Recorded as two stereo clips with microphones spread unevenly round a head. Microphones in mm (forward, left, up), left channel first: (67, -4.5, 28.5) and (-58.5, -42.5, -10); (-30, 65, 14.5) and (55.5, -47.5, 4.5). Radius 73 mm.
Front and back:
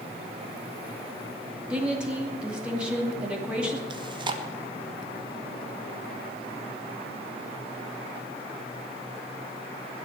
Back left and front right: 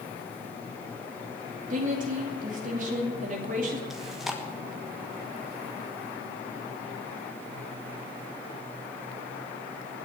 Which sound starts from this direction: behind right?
Chewing, at 3.9 s.